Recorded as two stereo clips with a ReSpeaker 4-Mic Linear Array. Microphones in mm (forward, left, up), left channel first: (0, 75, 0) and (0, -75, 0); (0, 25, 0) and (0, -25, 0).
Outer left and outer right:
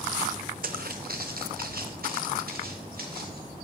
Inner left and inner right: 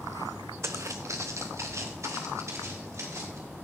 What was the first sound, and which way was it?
Footsteps, 75° right (ahead or behind).